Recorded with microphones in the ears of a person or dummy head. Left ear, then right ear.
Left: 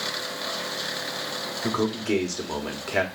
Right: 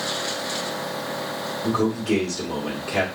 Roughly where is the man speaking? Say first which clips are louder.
Right 3 dB; left.